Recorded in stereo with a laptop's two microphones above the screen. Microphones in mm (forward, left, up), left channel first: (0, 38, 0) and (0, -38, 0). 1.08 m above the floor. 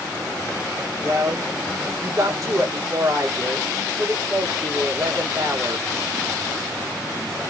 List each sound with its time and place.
1.0 s a woman speaking: 45° right (ahead or behind), 1.3 m